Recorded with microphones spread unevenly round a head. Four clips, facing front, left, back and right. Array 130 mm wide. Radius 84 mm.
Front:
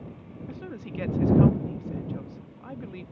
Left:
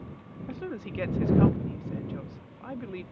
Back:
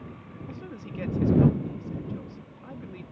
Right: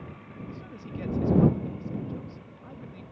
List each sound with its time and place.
0.5 s a woman speaking: 95° left